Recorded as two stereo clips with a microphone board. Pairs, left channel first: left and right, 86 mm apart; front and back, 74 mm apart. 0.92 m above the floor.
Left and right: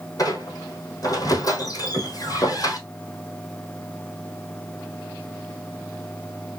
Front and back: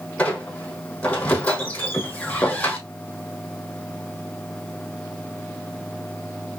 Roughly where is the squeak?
Left.